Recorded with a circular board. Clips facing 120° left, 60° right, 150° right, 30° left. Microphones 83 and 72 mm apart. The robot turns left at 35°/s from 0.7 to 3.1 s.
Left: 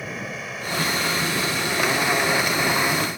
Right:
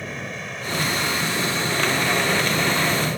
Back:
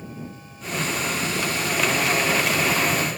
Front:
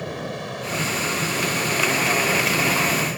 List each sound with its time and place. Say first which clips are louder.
0.0 s an aircraft: even, front 8 dB; 35° left; by 3.2 s 50° right